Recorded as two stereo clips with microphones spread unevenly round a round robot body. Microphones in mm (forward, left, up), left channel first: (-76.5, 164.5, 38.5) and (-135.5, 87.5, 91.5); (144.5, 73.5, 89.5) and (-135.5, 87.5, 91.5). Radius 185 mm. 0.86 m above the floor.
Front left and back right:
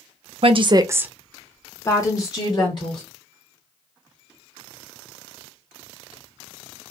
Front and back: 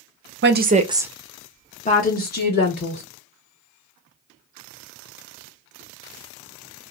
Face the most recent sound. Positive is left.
turn(degrees=50)